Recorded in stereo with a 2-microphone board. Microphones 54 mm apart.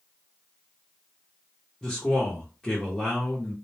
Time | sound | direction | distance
1.8 | a man speaking | 10° left (ahead or behind) | 0.8 m